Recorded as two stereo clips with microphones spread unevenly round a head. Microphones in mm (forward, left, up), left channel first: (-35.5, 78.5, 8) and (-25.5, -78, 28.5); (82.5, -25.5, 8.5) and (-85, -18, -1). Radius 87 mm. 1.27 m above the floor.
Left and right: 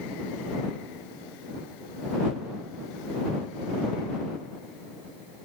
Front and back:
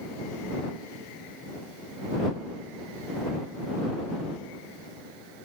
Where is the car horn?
I don't hear a car horn.